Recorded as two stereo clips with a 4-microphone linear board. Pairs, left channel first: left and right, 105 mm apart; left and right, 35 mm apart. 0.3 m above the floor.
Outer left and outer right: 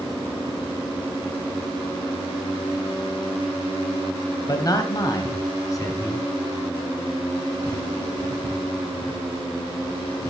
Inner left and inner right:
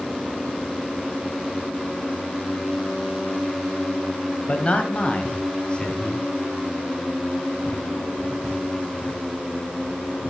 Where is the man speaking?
35° left (ahead or behind), 1.2 m.